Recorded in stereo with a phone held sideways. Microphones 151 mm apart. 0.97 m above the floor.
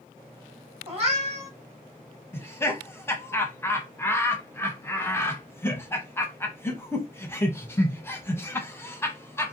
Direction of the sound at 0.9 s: 40° right (ahead or behind).